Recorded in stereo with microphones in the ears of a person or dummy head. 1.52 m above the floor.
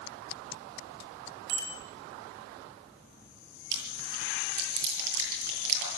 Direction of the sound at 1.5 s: 70° right (ahead or behind).